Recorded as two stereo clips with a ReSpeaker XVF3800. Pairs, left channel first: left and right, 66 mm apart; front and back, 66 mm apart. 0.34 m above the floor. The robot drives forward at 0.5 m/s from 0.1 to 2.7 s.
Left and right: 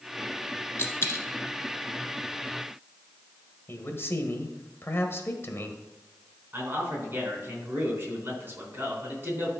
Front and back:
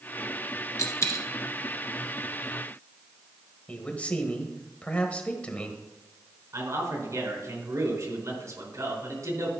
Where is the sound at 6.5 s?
150° right, 4 m.